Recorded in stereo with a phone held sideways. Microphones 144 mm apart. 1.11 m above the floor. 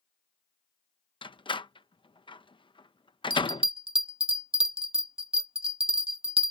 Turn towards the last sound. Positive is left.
turn(degrees=-40)  # may be behind; listen again after turning